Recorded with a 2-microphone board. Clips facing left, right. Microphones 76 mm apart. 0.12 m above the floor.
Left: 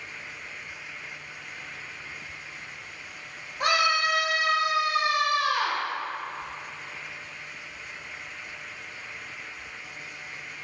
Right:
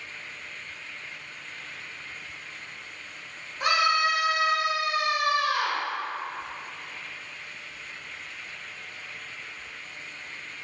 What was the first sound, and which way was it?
A scream, 55° left (ahead or behind).